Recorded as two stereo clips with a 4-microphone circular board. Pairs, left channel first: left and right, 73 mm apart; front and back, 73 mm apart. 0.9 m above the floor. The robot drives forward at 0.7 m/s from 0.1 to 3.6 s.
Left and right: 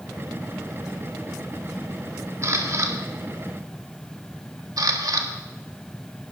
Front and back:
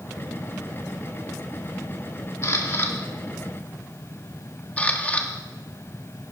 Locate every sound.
2.4 s a camera shutter: 45° right, 1.9 m; by 5.3 s 70° right, 1.5 m